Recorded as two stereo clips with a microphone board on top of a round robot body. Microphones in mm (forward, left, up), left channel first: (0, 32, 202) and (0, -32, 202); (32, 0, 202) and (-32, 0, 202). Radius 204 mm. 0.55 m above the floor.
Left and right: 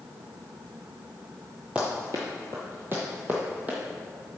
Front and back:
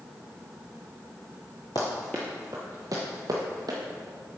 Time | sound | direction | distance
1.8 | running footsteps | 15° right | 0.6 m